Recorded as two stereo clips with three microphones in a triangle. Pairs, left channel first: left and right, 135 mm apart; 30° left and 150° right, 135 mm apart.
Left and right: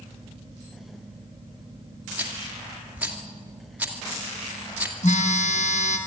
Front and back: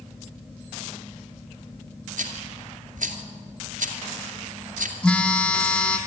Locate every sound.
2.2 s a rattle: 170° right, 2 m
5.0 s a phone buzzing: 110° left, 1.9 m